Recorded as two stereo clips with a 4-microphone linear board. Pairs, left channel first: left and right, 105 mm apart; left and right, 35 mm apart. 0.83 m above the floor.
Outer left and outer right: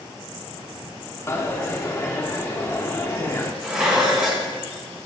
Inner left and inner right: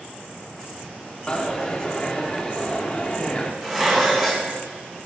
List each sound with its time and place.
1.3 s a dropped coin: 25° left (ahead or behind), 0.7 m
3.6 s dishes clattering: 5° right (ahead or behind), 2 m